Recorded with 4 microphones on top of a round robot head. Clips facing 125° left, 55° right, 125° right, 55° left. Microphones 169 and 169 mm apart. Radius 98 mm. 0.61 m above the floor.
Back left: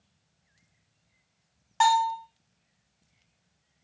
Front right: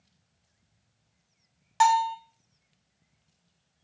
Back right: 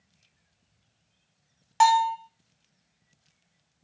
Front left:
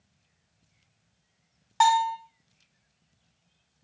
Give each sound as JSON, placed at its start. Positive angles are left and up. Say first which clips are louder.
{"t": 1.8, "sound": "a bell", "louder": "front right 1 dB, back right 2 dB", "azimuth_deg": -80, "distance_m": 0.9}